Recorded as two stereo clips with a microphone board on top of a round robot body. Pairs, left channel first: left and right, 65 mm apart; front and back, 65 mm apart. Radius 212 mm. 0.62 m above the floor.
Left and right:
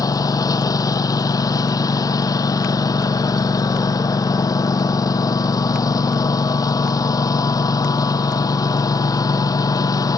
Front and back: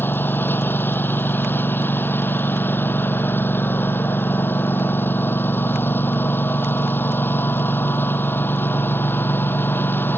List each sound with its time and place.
0.0 s a lawn mower: 60° left